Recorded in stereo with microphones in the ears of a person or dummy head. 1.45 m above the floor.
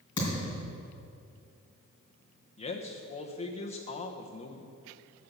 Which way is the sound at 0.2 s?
20° left (ahead or behind).